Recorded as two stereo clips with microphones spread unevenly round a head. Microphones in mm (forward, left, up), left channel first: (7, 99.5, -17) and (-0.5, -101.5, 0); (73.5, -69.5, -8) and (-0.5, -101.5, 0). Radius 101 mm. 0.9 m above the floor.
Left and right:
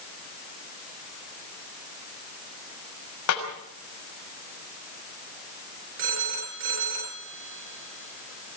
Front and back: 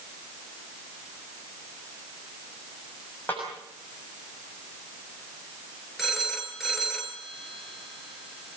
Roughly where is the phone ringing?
Right.